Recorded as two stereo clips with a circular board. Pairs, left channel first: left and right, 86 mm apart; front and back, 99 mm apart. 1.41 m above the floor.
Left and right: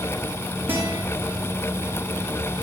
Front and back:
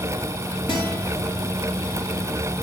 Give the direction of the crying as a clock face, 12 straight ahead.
I don't hear crying.